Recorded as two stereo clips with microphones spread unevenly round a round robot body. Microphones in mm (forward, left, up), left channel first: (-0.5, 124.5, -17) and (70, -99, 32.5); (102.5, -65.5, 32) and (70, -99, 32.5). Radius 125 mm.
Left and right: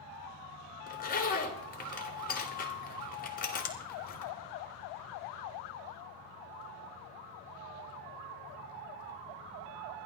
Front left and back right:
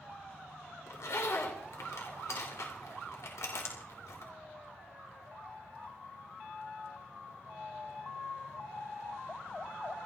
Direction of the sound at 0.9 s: 60° left.